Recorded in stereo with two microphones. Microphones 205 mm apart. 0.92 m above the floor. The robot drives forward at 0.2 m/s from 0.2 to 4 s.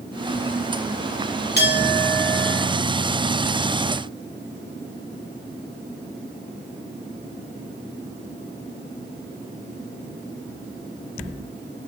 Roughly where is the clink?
Left.